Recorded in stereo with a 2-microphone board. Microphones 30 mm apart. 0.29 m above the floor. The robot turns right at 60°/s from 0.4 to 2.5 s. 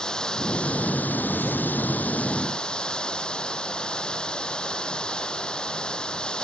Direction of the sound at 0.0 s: 25° left.